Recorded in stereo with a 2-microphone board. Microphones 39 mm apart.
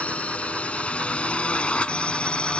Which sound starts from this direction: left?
A drone, at 0.0 s.